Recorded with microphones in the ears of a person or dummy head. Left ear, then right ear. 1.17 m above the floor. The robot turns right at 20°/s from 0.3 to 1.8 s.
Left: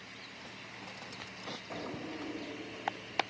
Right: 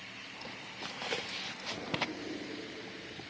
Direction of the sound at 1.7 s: 50° left (ahead or behind).